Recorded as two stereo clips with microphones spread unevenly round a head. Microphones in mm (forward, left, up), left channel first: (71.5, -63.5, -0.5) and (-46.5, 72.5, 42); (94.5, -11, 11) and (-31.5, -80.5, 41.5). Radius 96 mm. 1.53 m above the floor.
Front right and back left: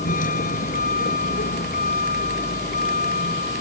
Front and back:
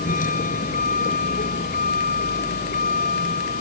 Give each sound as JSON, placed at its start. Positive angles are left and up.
{"t": 0.0, "sound": "a vehicle", "azimuth_deg": 0}